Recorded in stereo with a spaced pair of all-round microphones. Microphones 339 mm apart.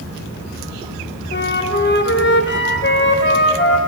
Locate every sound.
1.3 s a flute: 35° left (ahead or behind), 0.5 m